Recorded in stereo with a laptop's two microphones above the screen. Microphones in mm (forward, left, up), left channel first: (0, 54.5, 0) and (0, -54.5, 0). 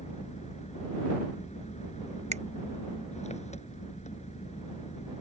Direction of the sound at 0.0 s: 80° left.